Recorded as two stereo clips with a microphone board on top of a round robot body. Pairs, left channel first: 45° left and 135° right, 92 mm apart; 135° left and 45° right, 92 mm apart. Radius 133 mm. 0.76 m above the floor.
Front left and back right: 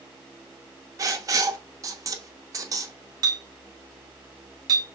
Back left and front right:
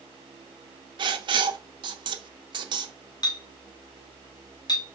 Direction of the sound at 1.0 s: 80° right.